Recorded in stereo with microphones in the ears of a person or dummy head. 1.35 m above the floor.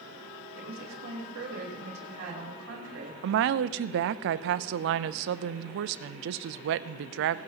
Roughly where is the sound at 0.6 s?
Right.